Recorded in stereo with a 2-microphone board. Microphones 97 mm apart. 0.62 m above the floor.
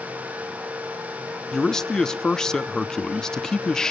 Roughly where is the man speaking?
Centre.